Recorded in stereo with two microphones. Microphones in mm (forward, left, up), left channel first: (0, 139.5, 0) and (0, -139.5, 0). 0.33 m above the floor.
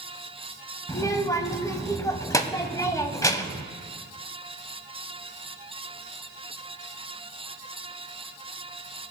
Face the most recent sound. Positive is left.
turn(degrees=10)  # may be behind; listen again after turning